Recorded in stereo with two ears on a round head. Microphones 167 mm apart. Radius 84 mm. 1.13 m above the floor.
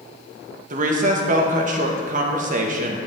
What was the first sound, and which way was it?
A woman speaking, 45° right (ahead or behind).